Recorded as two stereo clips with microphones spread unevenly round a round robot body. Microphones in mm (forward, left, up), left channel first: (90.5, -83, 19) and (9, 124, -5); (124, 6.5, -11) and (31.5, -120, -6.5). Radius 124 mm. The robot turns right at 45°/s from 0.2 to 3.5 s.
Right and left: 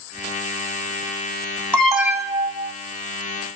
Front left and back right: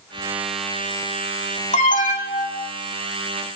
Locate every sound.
1.7 s an alarm: 15° left, 2.5 m; by 2.7 s 60° left, 2.5 m